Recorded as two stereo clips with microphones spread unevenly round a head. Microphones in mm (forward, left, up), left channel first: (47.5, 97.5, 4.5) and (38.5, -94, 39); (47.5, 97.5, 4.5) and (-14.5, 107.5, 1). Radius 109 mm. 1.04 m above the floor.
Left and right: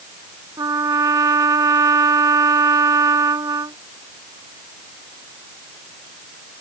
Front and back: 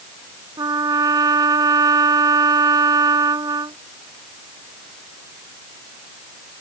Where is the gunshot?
I don't hear a gunshot.